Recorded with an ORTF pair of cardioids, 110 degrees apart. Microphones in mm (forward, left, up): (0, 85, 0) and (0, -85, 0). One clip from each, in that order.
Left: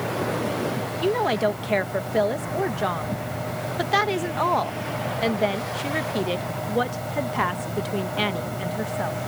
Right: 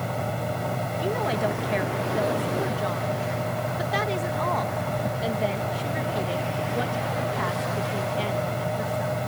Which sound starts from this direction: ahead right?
A fan, at 0.0 s.